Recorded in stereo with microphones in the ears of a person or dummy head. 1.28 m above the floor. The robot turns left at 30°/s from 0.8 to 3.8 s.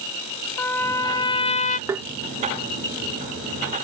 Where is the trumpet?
10° left (ahead or behind); by 1.8 s 40° left (ahead or behind).